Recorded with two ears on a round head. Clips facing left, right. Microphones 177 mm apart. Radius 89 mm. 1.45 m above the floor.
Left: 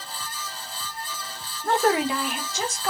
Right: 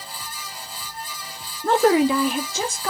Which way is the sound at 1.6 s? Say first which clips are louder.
Right 5 dB; 55° right (ahead or behind).